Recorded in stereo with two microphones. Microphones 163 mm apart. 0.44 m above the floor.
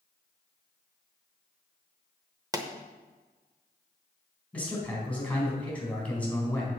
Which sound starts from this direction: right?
A pop, at 2.5 s.